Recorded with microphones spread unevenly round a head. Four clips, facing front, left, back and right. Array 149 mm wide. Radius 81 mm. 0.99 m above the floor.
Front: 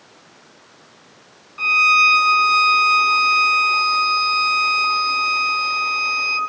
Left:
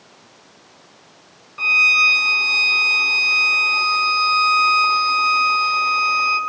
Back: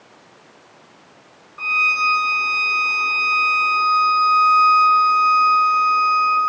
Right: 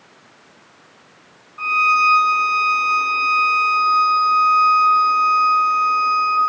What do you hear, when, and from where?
1.6 s a violin: 60° left, 7 m